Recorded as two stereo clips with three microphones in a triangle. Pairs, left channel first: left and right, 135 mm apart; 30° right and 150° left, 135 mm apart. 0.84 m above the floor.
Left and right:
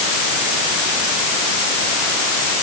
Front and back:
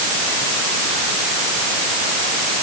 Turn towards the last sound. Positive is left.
No sound to turn to.